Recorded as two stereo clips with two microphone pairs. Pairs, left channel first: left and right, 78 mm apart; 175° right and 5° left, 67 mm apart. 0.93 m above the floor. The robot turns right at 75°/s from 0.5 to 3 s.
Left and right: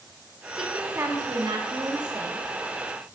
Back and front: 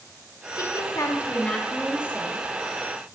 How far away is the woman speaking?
About 1.6 m.